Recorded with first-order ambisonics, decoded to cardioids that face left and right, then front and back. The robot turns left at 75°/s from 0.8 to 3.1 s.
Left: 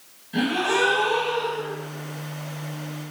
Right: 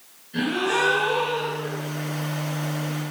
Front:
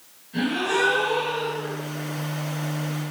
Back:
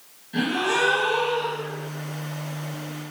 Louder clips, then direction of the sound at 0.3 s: Left 1 dB, back 1 dB; 110° left.